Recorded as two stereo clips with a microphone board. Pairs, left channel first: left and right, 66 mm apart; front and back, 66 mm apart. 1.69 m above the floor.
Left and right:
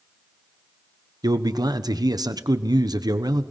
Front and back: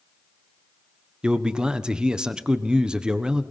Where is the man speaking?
100° right, 1.4 m.